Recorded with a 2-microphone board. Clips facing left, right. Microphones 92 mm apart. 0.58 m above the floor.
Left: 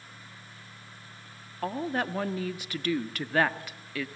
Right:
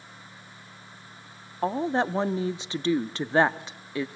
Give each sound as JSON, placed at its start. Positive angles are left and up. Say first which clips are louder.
{"t": 1.6, "sound": "a woman speaking", "louder": "right 5 dB", "side_deg": -25, "distance_m": 0.6}